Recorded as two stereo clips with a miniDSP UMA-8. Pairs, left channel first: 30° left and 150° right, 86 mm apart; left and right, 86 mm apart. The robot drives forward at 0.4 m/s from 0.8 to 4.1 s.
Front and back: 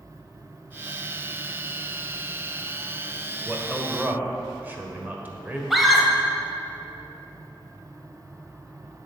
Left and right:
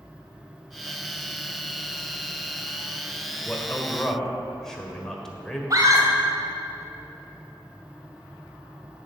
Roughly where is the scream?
Ahead right.